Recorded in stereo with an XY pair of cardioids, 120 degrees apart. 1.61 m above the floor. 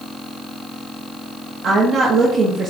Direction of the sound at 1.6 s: 50° right.